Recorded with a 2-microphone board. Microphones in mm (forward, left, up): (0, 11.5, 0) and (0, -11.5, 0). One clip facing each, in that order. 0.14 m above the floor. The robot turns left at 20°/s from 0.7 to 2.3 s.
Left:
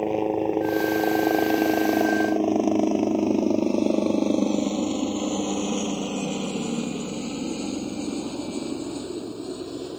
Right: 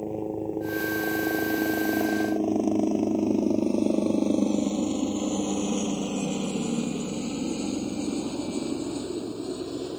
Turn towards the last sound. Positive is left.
turn(degrees=0)  # may be behind; listen again after turning